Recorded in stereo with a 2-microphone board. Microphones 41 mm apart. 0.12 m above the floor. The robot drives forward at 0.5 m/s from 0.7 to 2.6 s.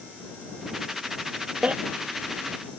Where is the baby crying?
35° right (ahead or behind).